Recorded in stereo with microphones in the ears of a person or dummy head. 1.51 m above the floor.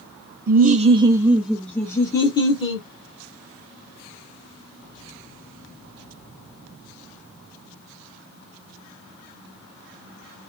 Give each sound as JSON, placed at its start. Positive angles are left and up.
{"t": 0.5, "sound": "laughter", "side_deg": -55, "distance_m": 0.6}